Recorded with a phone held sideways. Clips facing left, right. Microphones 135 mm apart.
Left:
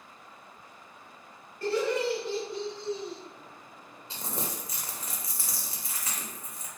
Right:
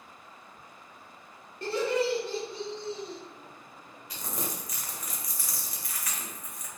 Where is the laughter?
25° right (ahead or behind), 0.9 m; by 3.2 s 55° right (ahead or behind), 1.1 m.